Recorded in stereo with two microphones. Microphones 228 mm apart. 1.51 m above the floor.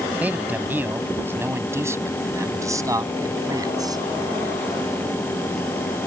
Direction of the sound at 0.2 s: 5° right (ahead or behind).